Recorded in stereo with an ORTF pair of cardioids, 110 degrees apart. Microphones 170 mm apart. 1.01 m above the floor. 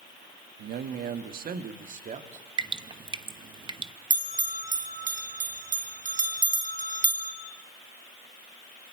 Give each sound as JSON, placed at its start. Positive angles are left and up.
{"t": 0.6, "sound": "a man speaking", "azimuth_deg": -65, "distance_m": 1.3}
{"t": 2.6, "sound": "dripping", "azimuth_deg": -30, "distance_m": 1.0}
{"t": 4.1, "sound": "a bell", "azimuth_deg": -50, "distance_m": 3.0}